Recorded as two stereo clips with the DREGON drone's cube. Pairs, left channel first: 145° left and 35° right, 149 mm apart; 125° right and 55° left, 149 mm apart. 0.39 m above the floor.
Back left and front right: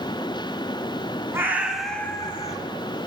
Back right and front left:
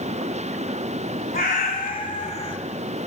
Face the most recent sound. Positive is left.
turn(degrees=180)